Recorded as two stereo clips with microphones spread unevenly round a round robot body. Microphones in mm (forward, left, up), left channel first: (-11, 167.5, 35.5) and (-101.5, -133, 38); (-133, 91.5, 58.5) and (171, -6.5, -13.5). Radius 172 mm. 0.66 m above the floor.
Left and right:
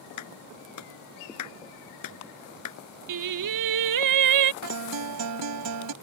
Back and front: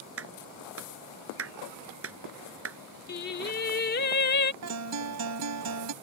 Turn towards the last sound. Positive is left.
turn(degrees=-65)